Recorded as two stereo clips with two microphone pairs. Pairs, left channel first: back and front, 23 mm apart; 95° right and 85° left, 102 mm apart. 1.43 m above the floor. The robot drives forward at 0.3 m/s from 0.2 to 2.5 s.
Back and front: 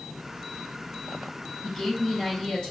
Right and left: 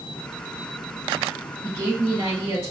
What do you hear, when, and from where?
1.6 s a woman speaking: 135° left, 1.9 m; by 2.7 s 140° left, 2 m